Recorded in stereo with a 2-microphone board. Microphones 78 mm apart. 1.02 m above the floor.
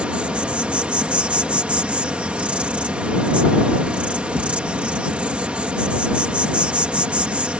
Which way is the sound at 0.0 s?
15° right (ahead or behind).